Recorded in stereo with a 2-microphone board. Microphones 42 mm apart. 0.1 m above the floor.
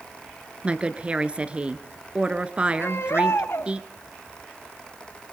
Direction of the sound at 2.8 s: 75° left (ahead or behind).